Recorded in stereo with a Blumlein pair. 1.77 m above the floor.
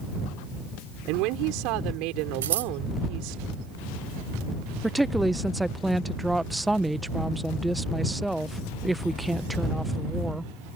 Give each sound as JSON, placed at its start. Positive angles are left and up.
{"t": 1.1, "sound": "a woman speaking", "azimuth_deg": -40}
{"t": 2.4, "sound": "scissors", "azimuth_deg": -60}
{"t": 4.8, "sound": "a woman speaking", "azimuth_deg": -5}